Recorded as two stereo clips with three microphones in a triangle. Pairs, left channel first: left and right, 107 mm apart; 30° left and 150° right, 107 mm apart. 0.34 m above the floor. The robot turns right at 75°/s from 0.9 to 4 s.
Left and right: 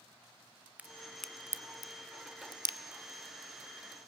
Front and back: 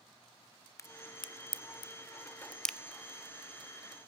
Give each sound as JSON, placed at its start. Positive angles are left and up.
{"t": 0.8, "sound": "a crack", "azimuth_deg": -20, "distance_m": 0.6}